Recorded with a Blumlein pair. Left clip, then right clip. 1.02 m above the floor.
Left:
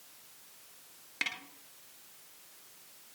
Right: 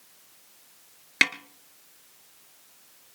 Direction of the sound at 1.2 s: 40° right.